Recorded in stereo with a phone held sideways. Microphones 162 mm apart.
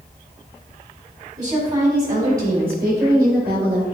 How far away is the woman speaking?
About 3.5 m.